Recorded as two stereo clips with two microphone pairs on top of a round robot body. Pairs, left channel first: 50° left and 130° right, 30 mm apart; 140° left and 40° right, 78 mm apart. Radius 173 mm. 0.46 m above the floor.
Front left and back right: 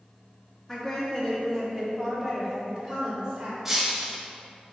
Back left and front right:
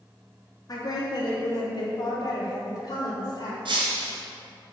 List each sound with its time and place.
0.7 s a woman speaking: 125° left, 1.7 m; by 3.5 s 175° right, 2.5 m
3.6 s breaking glass: 50° right, 1.4 m